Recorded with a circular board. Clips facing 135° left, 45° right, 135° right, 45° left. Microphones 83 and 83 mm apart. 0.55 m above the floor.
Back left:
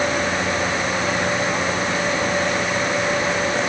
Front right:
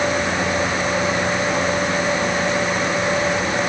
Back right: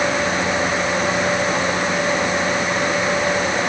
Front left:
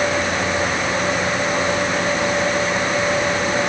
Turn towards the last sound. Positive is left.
No sound to turn to.